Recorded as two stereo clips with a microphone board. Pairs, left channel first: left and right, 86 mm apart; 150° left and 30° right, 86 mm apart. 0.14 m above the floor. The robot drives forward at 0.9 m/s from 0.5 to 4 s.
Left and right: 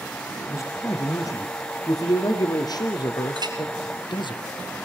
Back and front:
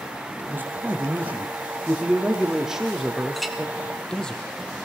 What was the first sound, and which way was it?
A man speaking, 35° left.